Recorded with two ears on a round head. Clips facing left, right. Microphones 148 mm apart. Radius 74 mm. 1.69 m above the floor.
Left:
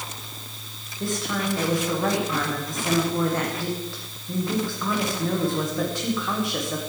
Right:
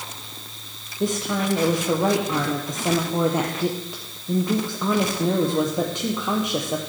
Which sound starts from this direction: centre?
A woman speaking, at 1.0 s.